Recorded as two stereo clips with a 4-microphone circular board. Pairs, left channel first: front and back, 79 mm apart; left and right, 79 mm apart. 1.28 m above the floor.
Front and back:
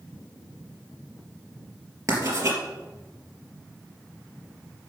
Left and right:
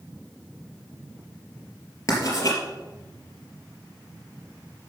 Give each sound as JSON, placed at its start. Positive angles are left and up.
{"t": 2.1, "sound": "writing", "azimuth_deg": 135, "distance_m": 4.0}